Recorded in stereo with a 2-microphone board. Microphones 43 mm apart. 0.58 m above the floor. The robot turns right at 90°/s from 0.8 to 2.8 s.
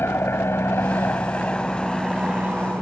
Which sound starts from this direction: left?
An aircraft, at 0.0 s.